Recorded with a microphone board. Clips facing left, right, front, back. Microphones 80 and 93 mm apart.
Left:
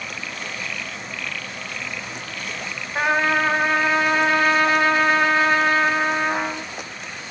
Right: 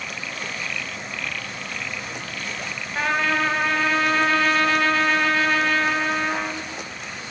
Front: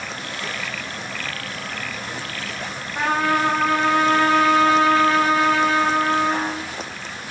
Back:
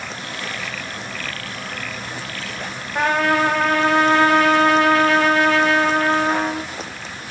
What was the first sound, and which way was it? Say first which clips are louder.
A trumpet: left 3 dB, back 2 dB; 160° left.